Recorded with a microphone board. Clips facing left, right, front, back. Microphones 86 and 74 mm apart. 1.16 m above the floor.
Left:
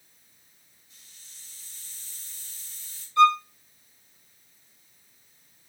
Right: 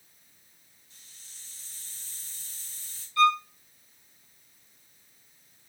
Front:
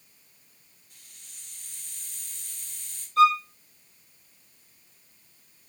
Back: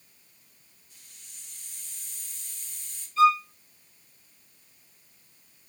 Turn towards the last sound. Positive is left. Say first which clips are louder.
# left 4 dB, front 1 dB
turn(degrees=25)